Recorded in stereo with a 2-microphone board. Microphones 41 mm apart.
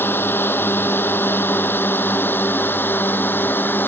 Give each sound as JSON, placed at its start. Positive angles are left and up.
{"t": 0.0, "sound": "a drone", "side_deg": 55}